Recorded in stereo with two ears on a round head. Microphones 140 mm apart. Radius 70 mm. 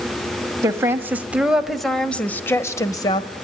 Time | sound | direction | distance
0.6 | a woman speaking | 20° right (ahead or behind) | 1.9 m